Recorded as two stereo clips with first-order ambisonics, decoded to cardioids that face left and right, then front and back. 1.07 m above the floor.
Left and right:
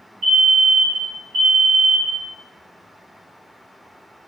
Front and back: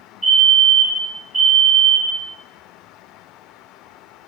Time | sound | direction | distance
0.2 | a fire alarm | 105° right | 1.4 m